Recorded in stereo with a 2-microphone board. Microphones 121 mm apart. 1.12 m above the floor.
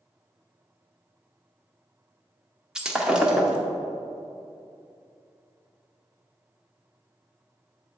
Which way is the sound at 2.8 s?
5° right (ahead or behind).